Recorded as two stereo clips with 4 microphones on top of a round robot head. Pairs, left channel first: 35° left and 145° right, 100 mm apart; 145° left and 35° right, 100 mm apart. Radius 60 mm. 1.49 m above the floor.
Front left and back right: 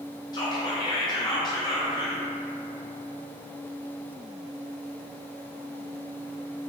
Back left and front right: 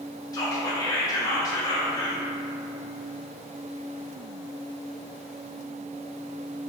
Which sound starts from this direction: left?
Whispering, at 0.3 s.